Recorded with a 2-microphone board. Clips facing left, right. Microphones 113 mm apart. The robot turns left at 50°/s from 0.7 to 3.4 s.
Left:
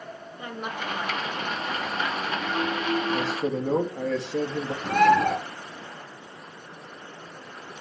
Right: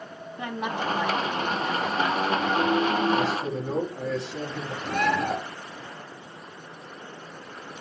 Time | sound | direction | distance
0.4 | a woman speaking | 85° right | 4 m
3.1 | a man speaking | 75° left (ahead or behind) | 3 m
4.8 | a bird | 65° left (ahead or behind) | 4 m